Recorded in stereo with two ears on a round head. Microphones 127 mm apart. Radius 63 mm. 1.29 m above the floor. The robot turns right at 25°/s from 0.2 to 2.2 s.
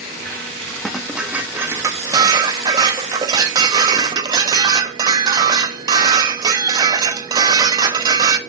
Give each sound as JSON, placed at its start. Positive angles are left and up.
{"t": 0.8, "sound": "dishes clattering", "azimuth_deg": 180, "distance_m": 0.9}